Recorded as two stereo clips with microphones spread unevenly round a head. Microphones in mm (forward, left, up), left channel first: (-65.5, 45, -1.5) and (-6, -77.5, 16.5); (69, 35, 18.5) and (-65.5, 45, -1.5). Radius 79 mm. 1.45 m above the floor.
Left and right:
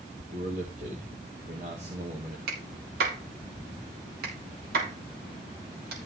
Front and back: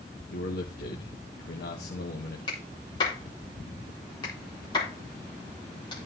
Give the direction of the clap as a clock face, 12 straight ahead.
2 o'clock.